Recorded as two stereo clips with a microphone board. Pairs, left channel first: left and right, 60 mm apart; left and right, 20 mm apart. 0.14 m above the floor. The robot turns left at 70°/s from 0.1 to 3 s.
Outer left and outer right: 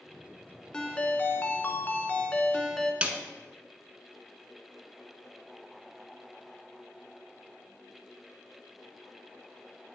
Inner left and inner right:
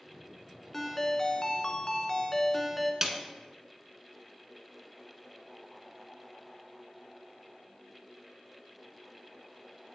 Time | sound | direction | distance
0.7 | a ringtone | 155° left | 0.6 m
3.0 | a snare drum | 20° right (ahead or behind) | 0.7 m